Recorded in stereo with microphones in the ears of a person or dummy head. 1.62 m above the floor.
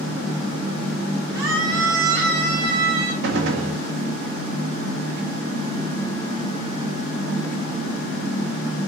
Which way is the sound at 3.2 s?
60° right (ahead or behind).